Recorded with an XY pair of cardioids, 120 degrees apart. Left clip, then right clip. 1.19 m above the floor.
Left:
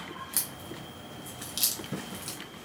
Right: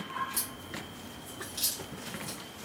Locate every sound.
0.3 s a crack: 70° left, 1.1 m